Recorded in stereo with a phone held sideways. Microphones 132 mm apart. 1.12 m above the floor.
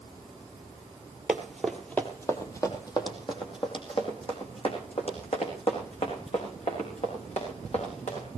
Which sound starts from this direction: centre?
Running footsteps, at 1.3 s.